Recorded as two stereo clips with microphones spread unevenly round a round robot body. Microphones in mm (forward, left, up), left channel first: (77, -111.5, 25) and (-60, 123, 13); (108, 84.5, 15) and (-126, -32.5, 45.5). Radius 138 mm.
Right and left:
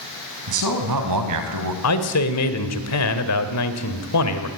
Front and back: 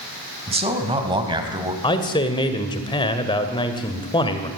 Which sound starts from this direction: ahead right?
A man speaking, at 1.8 s.